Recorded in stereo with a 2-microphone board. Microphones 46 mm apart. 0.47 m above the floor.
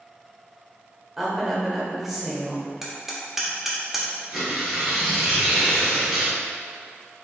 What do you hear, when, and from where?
1.2 s a woman speaking: 5° right (ahead or behind), 1.2 m
2.8 s hammering: 5° right (ahead or behind), 1.0 m
4.3 s tearing paper: 5° right (ahead or behind), 1.7 m